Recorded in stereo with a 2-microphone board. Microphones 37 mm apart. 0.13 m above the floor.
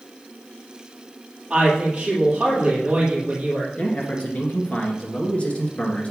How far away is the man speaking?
About 1.9 m.